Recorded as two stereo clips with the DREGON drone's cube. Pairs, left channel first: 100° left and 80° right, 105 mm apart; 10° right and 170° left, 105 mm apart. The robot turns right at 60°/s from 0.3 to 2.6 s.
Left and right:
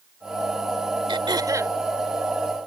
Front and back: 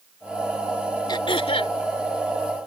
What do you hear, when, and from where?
1.1 s throat clearing: 50° right; by 1.8 s 10° right